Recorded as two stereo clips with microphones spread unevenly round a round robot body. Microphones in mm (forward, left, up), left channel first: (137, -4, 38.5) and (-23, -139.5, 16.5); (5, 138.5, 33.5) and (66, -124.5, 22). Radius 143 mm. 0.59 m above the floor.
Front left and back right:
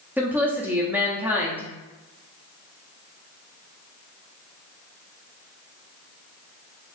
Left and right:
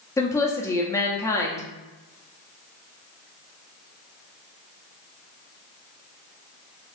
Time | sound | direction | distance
0.2 | a woman speaking | 170° left | 0.5 m